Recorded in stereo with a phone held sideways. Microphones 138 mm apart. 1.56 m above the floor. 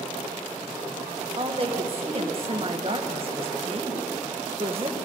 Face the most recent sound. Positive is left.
turn(degrees=-40)  # may be behind; listen again after turning